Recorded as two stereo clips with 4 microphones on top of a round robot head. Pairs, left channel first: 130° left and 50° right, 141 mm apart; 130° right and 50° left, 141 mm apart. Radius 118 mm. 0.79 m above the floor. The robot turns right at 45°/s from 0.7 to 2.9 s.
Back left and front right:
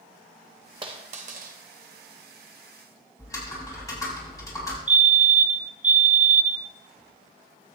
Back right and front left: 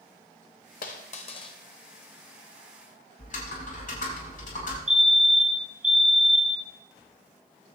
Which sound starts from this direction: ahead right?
A fire alarm, at 4.9 s.